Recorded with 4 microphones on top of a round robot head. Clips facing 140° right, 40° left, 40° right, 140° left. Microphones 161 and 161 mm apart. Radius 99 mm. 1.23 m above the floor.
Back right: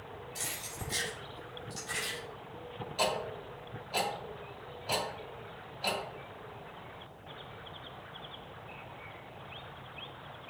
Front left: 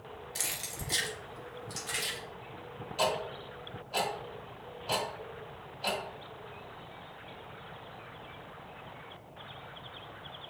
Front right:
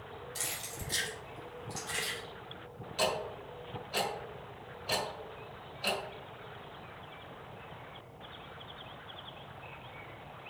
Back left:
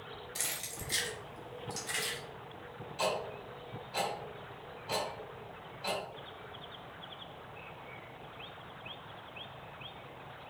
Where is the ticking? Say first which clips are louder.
Front left 1 dB, front right 1 dB; 55° right, 2 m.